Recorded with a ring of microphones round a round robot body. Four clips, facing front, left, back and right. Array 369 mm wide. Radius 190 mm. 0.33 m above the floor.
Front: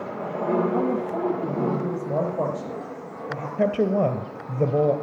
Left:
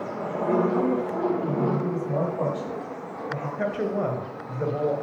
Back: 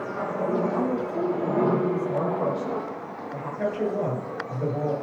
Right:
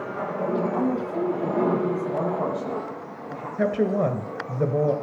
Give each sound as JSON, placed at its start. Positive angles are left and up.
{"t": 0.7, "sound": "a woman speaking", "azimuth_deg": 10, "distance_m": 9.0}
{"t": 3.6, "sound": "a woman speaking", "azimuth_deg": -35, "distance_m": 1.9}